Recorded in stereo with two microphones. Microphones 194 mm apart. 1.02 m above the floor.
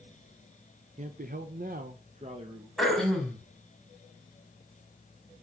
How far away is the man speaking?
About 0.7 m.